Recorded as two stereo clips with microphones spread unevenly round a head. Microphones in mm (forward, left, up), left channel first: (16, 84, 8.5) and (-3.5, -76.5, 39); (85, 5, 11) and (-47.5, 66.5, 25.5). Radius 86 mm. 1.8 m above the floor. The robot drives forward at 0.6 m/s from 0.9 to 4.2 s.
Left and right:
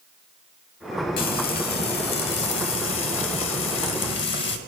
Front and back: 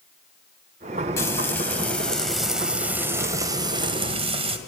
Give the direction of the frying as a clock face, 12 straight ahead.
10 o'clock.